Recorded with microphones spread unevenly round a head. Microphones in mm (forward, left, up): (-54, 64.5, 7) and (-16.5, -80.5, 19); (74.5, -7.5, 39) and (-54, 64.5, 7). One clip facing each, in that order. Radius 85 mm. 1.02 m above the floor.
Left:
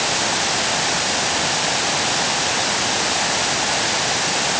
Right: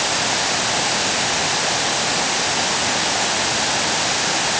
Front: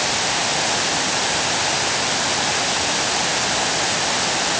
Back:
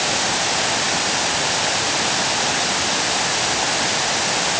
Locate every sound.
Only background noise.